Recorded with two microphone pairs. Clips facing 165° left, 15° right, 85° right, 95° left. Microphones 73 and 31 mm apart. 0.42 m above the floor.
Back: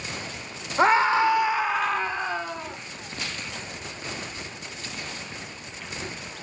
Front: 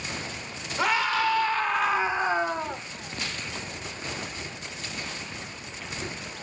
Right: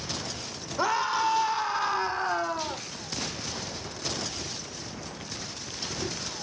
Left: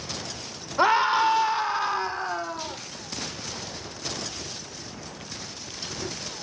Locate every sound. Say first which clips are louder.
0.8 s a scream: back 6 dB, left 6 dB; 125° left, 1.2 m; by 2.8 s 30° right, 1.1 m